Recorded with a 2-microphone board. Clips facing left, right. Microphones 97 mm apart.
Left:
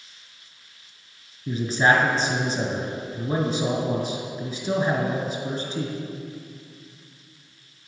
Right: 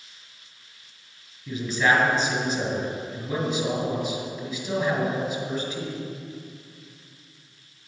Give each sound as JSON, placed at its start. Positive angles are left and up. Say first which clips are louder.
{"t": 1.5, "sound": "a man speaking", "louder": "left 2 dB", "side_deg": 35, "distance_m": 2.0}